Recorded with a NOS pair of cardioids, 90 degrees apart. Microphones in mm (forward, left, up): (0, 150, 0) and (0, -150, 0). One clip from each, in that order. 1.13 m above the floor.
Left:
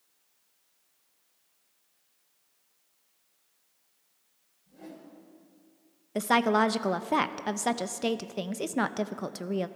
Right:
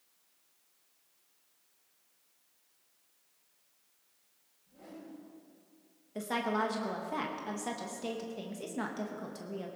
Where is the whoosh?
60° left, 7 m.